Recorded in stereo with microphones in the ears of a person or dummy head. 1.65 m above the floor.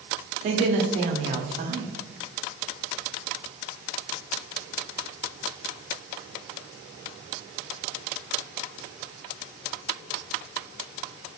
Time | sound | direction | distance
0.4 | a woman speaking | 35° right (ahead or behind) | 0.5 m